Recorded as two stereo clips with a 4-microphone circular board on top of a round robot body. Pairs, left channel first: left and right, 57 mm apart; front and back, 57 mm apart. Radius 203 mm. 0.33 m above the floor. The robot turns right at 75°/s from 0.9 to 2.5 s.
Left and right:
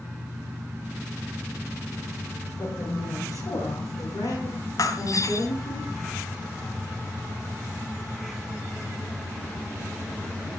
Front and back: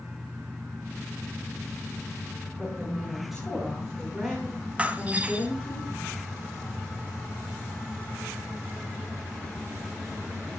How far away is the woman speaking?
About 5.5 m.